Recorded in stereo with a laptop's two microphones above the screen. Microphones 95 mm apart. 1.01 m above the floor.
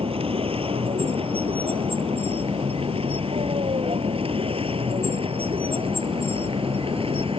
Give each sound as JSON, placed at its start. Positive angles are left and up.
{"t": 0.0, "sound": "a vehicle", "side_deg": -90}